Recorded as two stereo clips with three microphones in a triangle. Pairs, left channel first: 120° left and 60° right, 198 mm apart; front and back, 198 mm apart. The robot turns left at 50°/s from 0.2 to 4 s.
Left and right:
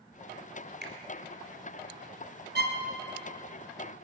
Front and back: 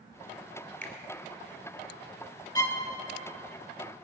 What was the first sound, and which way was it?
A finger snap, 80° right.